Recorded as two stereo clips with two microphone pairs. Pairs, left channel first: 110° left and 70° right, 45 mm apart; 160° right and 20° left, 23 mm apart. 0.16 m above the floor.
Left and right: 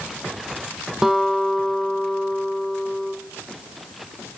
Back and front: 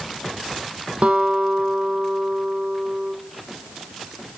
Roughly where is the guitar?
Ahead.